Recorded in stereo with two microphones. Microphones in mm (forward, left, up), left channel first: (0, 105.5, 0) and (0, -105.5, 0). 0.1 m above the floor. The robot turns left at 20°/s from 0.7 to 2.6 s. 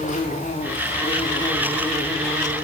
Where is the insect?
35° left, 5.5 m; by 2.6 s 5° right, 5.5 m.